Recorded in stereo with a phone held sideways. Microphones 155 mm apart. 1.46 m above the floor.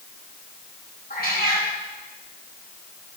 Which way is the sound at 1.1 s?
80° left.